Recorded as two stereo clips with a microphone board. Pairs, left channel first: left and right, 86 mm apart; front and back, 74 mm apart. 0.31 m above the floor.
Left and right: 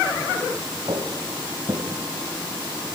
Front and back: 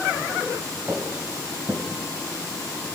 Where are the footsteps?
130° right, 4.5 m.